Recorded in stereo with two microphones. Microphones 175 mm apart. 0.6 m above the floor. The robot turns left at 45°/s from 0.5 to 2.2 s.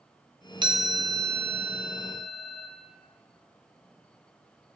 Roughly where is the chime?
Behind right.